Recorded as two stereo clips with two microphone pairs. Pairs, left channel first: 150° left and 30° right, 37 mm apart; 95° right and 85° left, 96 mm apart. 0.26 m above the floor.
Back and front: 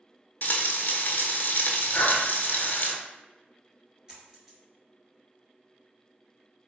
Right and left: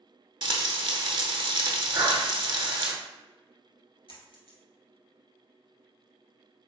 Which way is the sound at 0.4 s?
115° left.